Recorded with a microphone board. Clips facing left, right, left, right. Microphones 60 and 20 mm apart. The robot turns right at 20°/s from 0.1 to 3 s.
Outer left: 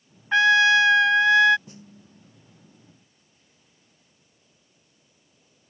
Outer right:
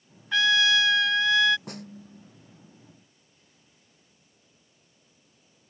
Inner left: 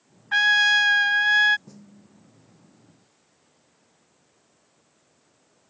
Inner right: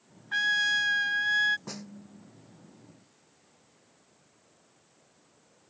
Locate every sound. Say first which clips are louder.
0.3 s a trumpet: outer left 6 dB, inner left 8 dB; 35° left (ahead or behind); by 1.6 s 30° left (ahead or behind)
1.7 s a snare drum: outer right 6 dB, inner right 7 dB; 80° right